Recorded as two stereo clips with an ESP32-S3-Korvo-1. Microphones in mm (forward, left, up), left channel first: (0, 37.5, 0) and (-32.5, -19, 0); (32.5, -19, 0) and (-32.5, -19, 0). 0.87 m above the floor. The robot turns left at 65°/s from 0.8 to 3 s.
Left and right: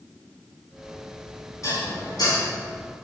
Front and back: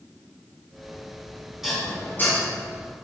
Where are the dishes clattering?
95° left, 5 m; by 2.4 s 45° left, 5 m.